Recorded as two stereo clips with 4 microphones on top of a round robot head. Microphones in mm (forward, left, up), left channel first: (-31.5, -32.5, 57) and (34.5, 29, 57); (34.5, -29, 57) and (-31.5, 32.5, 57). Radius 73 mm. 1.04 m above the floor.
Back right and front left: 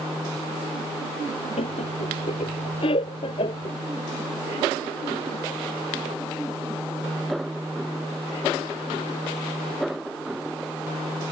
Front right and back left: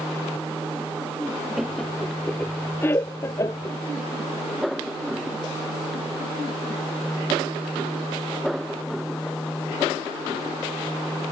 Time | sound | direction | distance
1.6 | laughter | 135° right | ?